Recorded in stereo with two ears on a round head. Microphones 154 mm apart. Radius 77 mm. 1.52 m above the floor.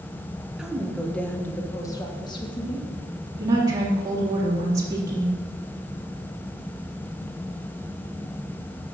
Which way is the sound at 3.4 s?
20° right (ahead or behind).